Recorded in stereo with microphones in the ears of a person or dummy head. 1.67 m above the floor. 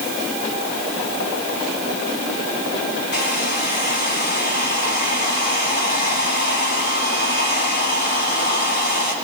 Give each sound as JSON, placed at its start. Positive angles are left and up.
{"t": 3.1, "sound": "a hair dryer", "side_deg": 50, "distance_m": 1.3}